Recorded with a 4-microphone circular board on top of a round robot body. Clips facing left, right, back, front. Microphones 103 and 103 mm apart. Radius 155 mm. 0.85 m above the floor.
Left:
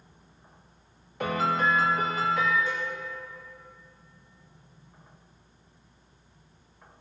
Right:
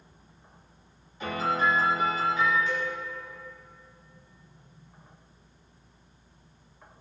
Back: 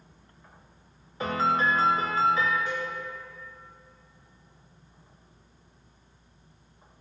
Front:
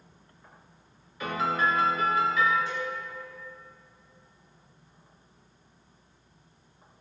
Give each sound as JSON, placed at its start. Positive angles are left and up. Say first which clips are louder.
{"t": 1.2, "sound": "a piano", "louder": "left 1 dB, back 2 dB", "azimuth_deg": 120, "distance_m": 0.8}
{"t": 2.7, "sound": "a cowbell", "louder": "right 2 dB, back 1 dB", "azimuth_deg": 140, "distance_m": 2.5}